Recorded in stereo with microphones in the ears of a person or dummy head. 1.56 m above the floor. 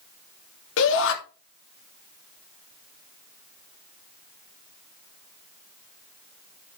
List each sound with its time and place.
0.8 s a shout: 70° left (ahead or behind), 2.5 m